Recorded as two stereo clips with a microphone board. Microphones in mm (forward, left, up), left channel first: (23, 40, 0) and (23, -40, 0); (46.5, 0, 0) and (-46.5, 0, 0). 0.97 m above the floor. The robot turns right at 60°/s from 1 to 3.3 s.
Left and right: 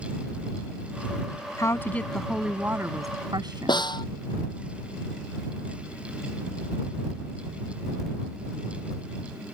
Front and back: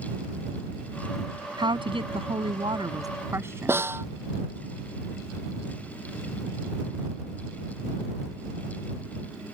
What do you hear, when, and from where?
1.6 s a woman speaking: 140° left; by 3.9 s 120° right
3.7 s a snare drum: 115° left